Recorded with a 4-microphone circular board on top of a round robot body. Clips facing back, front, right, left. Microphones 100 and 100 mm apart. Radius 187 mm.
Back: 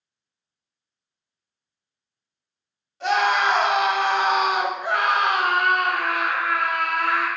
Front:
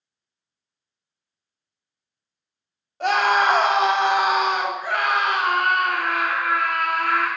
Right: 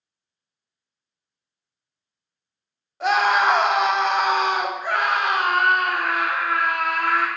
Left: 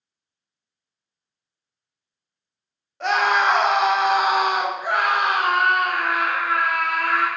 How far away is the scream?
About 1.1 m.